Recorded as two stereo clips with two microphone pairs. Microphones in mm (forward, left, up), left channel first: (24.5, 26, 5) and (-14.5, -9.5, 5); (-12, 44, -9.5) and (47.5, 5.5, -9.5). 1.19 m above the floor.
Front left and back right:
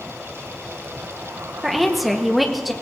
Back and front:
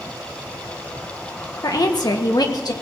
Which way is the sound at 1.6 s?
130° left.